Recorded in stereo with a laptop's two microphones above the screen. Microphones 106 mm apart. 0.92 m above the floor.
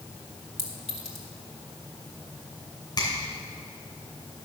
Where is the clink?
85° right, 2 m.